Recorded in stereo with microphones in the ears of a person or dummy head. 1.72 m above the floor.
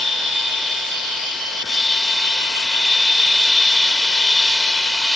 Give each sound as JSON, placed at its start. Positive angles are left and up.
{"t": 0.0, "sound": "a machine running", "side_deg": 5}